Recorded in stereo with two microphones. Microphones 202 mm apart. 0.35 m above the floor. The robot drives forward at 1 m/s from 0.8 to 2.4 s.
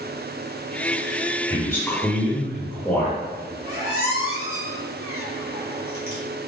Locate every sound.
1.5 s a man speaking: 10° left (ahead or behind), 1.3 m
3.6 s a squeak: 50° left (ahead or behind), 1.5 m